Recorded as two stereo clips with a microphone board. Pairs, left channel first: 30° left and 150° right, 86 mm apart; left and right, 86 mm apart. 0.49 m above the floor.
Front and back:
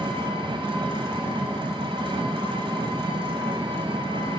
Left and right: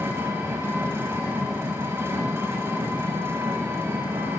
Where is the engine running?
155° right, 1.1 m.